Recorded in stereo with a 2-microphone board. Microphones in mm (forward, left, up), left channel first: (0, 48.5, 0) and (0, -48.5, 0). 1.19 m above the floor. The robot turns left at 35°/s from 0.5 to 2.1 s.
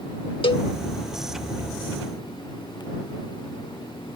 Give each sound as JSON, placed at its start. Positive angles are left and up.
{"t": 0.4, "sound": "a cowbell", "side_deg": 65}